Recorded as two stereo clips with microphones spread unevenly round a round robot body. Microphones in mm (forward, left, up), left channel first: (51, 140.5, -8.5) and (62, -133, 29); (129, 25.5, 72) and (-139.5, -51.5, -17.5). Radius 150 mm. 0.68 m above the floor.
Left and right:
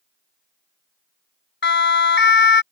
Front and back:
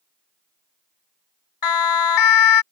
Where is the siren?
40° left.